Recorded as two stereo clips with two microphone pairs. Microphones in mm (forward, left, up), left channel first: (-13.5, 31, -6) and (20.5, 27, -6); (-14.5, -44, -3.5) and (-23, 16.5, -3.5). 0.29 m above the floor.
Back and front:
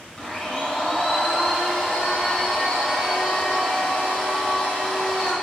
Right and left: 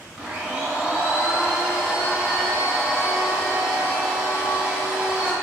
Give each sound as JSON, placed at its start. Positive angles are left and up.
{"t": 0.2, "sound": "a blender", "azimuth_deg": 145, "distance_m": 0.9}